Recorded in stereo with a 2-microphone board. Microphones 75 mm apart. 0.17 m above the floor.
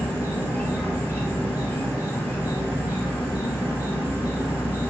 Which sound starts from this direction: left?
An insect, at 0.0 s.